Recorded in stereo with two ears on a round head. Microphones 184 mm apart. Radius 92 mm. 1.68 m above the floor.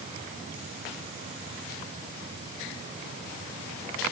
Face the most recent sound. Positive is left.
No sound to turn to.